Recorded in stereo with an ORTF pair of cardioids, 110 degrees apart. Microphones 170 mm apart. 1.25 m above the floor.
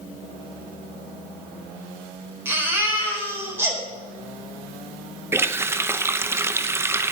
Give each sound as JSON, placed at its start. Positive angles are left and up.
{"t": 2.5, "sound": "a baby crying", "azimuth_deg": -15, "distance_m": 4.0}
{"t": 5.3, "sound": "a running tap", "azimuth_deg": -15, "distance_m": 0.6}